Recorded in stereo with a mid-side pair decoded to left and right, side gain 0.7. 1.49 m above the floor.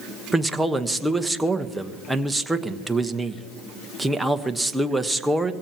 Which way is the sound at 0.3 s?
10° right.